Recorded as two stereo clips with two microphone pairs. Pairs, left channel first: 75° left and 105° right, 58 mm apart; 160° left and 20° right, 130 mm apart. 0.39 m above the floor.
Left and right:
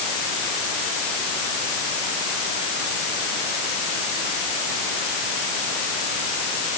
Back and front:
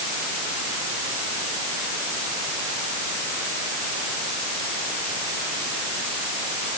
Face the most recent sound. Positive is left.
No sound to turn to.